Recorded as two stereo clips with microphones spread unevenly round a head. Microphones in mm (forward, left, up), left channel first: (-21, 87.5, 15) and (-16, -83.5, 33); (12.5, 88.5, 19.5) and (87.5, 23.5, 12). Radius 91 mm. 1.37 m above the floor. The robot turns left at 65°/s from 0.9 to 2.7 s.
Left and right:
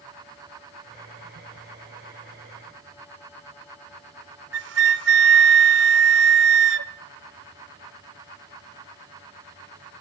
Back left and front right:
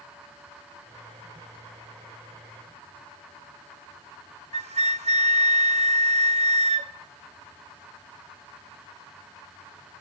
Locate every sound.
4.5 s a flute: 80° right, 0.9 m